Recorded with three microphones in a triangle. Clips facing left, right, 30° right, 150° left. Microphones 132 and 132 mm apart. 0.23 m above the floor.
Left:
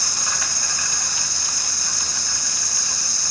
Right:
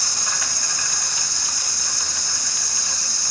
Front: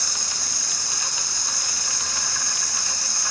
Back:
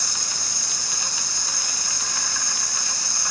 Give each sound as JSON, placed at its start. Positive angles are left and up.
{"t": 0.0, "sound": "an insect", "azimuth_deg": 175, "distance_m": 3.0}